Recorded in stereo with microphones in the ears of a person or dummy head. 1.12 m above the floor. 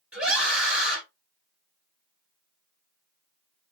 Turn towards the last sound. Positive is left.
turn(degrees=-5)  # may be behind; listen again after turning